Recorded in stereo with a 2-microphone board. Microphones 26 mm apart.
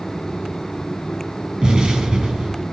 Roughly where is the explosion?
Right.